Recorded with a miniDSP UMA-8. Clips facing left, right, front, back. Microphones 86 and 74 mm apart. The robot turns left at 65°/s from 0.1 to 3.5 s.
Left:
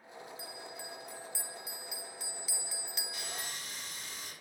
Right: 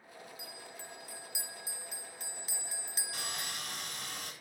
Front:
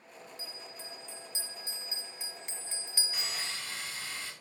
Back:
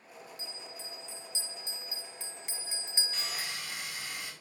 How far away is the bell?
About 0.6 m.